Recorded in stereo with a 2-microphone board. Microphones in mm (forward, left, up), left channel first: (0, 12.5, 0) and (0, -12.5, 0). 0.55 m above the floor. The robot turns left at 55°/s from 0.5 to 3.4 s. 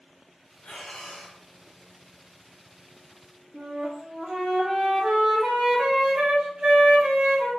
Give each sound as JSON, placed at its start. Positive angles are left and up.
{"t": 0.6, "sound": "breathing", "azimuth_deg": 60, "distance_m": 0.9}
{"t": 3.5, "sound": "a flute", "side_deg": -45, "distance_m": 0.7}